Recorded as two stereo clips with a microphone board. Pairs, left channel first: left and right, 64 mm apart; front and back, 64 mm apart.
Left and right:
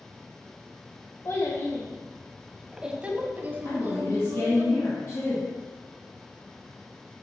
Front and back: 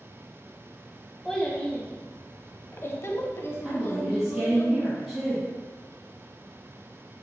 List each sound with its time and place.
1.2 s a child speaking: 80° left, 0.8 m; by 4.7 s 45° right, 1.5 m
3.6 s a woman speaking: 100° left, 2.5 m